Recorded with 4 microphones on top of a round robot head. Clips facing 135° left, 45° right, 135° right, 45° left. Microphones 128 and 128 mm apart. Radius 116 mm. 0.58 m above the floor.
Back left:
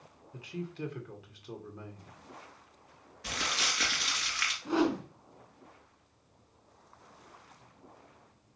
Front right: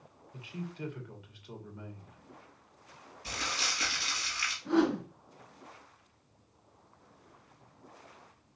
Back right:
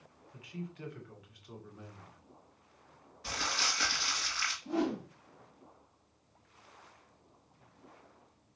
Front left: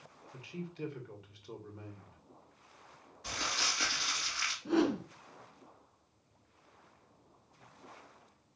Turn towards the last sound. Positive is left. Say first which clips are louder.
# front right 1 dB, front left 3 dB
turn(degrees=60)